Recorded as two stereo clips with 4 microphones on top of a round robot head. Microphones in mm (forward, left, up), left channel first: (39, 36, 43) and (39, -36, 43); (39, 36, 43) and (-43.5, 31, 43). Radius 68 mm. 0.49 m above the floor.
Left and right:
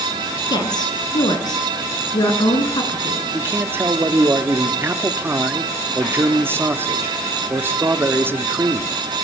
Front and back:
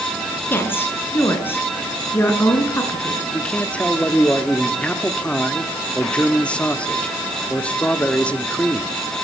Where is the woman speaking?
65° left, 6.5 m.